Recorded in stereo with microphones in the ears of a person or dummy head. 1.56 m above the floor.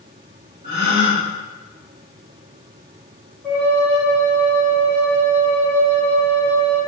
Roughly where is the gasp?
Right.